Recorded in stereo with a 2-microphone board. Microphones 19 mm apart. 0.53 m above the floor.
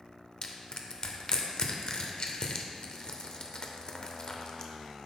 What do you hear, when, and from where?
0.4 s crushing: 45° left (ahead or behind), 0.6 m